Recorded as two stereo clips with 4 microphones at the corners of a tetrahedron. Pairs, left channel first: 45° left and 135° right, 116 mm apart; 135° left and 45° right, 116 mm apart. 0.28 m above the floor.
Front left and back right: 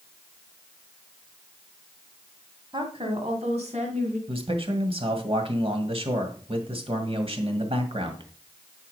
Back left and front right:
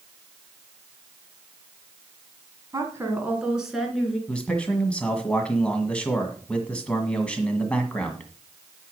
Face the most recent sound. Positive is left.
turn(degrees=-145)